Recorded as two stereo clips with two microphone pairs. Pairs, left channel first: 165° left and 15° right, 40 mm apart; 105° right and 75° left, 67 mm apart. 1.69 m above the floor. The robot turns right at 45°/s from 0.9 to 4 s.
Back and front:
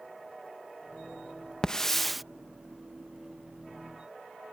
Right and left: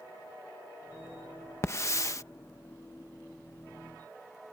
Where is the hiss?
130° right; by 2.2 s 100° right.